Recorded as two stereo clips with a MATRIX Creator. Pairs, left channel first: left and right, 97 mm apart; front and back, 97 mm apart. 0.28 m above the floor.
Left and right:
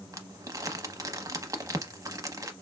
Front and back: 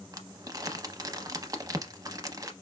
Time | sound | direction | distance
0.1 | crumpling | 135° right | 0.6 m